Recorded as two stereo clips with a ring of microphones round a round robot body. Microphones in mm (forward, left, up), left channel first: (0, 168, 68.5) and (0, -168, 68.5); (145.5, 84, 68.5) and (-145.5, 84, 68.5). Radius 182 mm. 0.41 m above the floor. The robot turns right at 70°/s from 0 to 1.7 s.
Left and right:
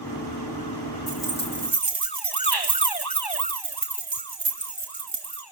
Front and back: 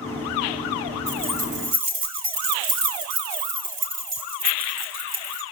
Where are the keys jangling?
140° left, 3 m; by 5.4 s 175° right, 3 m.